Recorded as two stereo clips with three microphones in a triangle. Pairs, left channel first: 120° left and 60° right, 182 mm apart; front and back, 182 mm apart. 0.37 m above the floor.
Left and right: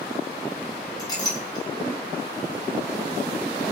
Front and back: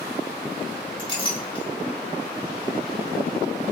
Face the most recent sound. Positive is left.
turn(degrees=55)